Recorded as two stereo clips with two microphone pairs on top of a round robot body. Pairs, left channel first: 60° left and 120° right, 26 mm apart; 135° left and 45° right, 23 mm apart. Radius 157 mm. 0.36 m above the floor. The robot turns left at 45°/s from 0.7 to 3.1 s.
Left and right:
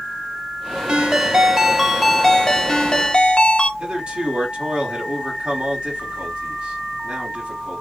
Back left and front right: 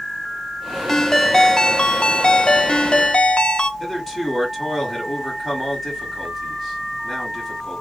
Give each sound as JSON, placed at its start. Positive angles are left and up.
{"t": 0.9, "sound": "a ringtone", "azimuth_deg": -160, "distance_m": 0.8}
{"t": 3.8, "sound": "a man speaking", "azimuth_deg": -135, "distance_m": 1.7}